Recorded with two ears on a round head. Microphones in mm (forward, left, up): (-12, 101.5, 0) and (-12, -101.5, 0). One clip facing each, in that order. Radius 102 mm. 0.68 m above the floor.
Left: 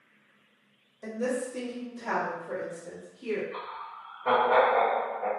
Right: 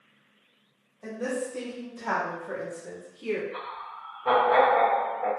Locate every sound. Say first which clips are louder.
1.0 s a woman speaking: left 1 dB; 30° left (ahead or behind), 1.2 m; by 3.4 s 40° right (ahead or behind), 1.5 m
3.5 s laughter: right 1 dB; centre (ahead or behind), 1.3 m